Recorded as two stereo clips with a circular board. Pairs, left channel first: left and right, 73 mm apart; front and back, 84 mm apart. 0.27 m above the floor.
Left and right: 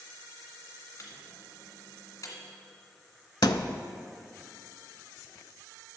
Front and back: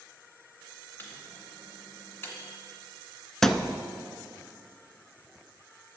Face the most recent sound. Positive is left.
turn(degrees=85)